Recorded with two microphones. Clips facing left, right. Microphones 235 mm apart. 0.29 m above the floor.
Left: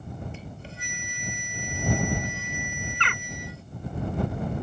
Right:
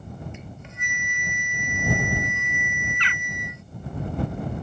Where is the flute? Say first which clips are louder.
Even; 30° left (ahead or behind).